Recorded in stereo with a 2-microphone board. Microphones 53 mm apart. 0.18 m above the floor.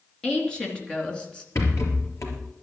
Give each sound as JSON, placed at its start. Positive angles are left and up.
{"t": 0.2, "sound": "a woman speaking", "side_deg": 20, "distance_m": 3.0}
{"t": 1.6, "sound": "a rattle", "side_deg": 65, "distance_m": 3.5}